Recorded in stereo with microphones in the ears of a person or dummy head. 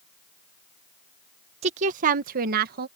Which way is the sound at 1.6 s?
35° right (ahead or behind).